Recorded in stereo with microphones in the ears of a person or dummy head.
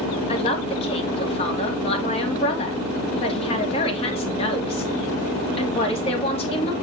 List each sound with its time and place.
0.3 s a man speaking: 30° left (ahead or behind), 2.5 m